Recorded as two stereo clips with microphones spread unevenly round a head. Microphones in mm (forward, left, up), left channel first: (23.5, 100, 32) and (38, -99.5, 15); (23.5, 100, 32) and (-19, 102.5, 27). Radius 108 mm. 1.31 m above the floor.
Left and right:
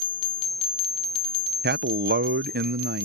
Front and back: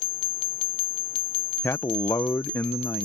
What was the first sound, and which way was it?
A man speaking, 50° right.